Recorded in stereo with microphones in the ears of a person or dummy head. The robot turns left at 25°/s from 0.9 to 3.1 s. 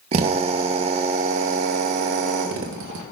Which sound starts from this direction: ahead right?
A drill, at 0.1 s.